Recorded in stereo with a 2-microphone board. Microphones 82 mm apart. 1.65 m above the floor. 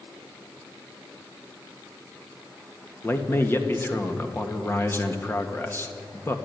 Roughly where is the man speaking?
Left.